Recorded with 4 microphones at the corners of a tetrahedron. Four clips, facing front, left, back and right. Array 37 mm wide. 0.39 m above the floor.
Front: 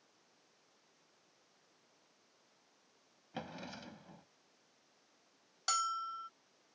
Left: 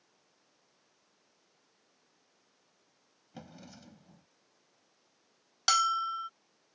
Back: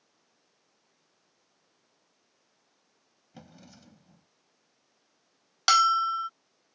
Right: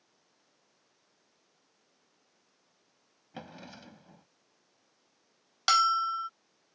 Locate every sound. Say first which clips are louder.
3.3 s a drawer: right 4 dB, front 6 dB; 40° right
5.7 s a bell: right 3 dB, back 15 dB; 170° right